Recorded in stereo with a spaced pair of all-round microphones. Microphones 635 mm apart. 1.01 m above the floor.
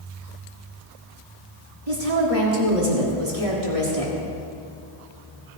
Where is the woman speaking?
60° right (ahead or behind), 3 m.